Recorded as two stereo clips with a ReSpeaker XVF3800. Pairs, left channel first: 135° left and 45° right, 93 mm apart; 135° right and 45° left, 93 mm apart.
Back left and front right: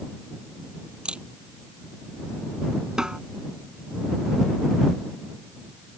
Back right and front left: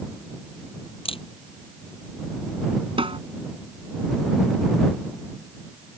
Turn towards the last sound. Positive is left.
turn(degrees=35)